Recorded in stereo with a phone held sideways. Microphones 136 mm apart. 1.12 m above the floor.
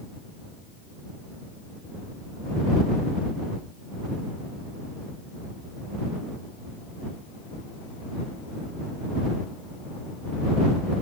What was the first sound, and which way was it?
Only background noise.